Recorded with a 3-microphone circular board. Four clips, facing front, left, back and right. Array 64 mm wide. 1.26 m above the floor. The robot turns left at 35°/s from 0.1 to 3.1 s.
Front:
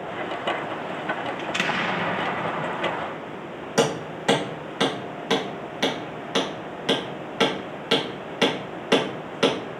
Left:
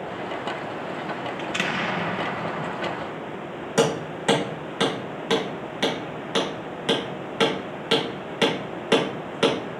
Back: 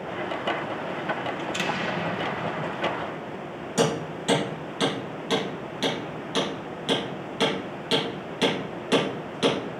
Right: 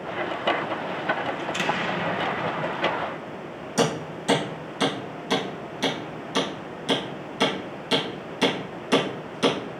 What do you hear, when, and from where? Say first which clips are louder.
1.4 s an explosion: even, front 2 dB; 40° left, 0.8 m; by 3.2 s 20° right, 0.8 m
3.8 s hammering: left 2 dB, front 2 dB; 45° left, 3.5 m